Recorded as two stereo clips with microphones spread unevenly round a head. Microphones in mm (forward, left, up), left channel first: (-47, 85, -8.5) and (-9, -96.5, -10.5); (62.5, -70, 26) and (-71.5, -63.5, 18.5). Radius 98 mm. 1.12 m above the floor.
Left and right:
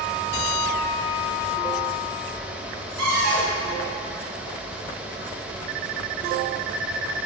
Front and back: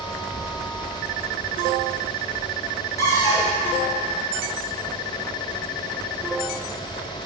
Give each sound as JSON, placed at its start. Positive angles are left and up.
{"t": 3.0, "sound": "a cupboard door", "azimuth_deg": -70, "distance_m": 3.0}